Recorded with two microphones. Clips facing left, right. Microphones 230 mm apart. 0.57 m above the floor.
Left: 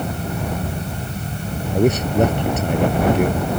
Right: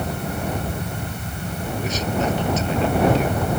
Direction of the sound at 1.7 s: 55° left (ahead or behind).